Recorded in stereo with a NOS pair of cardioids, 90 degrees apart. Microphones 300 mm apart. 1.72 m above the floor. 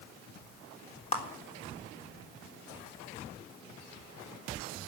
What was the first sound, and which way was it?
A clap, 25° left.